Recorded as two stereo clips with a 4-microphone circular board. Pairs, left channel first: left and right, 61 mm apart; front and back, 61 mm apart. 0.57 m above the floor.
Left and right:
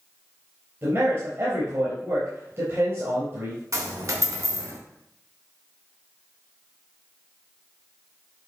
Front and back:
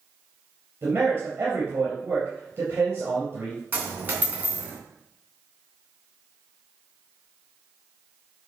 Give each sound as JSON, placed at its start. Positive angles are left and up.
{"t": 0.8, "sound": "a man speaking", "azimuth_deg": -130, "distance_m": 3.5}
{"t": 3.7, "sound": "a dropped coin", "azimuth_deg": -120, "distance_m": 2.5}